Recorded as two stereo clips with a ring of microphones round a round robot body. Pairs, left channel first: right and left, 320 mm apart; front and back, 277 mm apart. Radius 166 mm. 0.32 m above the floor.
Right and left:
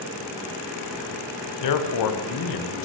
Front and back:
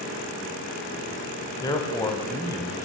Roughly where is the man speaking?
Right.